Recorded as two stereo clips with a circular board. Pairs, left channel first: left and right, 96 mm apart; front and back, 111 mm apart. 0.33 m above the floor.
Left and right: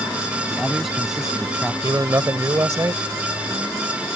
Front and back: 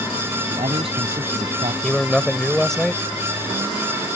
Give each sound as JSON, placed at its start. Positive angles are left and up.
{"t": 0.5, "sound": "a man speaking", "azimuth_deg": 180}
{"t": 1.8, "sound": "a man speaking", "azimuth_deg": -85}